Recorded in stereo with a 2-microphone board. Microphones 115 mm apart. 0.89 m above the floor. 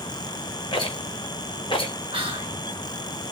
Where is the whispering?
55° right (ahead or behind), 0.9 m.